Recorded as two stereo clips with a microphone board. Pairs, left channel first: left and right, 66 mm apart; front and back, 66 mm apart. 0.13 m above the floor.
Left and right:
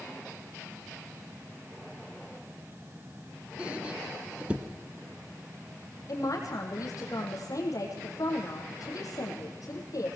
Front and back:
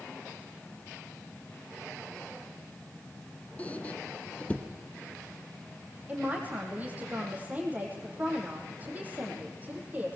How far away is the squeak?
About 1.1 m.